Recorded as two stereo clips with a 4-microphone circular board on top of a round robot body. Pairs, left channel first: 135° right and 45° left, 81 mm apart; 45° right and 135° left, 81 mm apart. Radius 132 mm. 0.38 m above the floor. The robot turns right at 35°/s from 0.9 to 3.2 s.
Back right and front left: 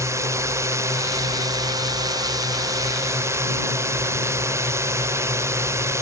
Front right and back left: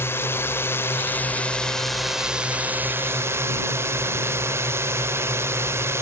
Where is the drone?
5° left; by 6.0 s 90° left.